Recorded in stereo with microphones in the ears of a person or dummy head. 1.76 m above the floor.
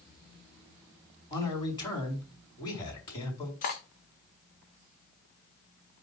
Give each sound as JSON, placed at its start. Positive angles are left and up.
{"t": 1.3, "sound": "a man speaking", "side_deg": 25, "distance_m": 4.5}
{"t": 3.6, "sound": "cutlery clinking", "side_deg": 40, "distance_m": 1.1}